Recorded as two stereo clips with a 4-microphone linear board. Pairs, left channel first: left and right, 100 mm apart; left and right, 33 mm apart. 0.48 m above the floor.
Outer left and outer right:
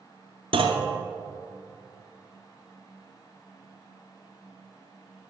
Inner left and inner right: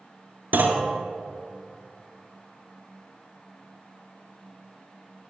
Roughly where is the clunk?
Right.